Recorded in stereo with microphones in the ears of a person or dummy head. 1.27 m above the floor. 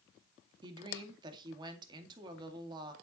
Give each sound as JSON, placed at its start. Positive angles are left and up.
{"t": 0.6, "sound": "a woman speaking", "side_deg": -30, "distance_m": 2.0}